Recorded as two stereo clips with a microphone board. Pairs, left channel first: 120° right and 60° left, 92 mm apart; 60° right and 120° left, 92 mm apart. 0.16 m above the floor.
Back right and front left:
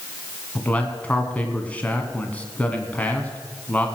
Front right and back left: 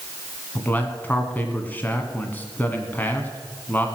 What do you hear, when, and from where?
0.6 s a man speaking: 85° right, 1.6 m